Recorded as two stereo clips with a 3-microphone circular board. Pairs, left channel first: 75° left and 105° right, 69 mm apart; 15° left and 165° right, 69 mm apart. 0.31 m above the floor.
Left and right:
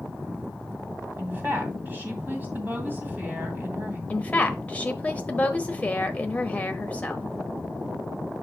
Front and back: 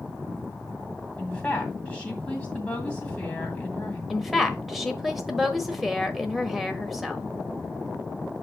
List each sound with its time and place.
1.2 s a woman speaking: 55° right, 1.9 m
4.1 s a woman speaking: 110° left, 0.9 m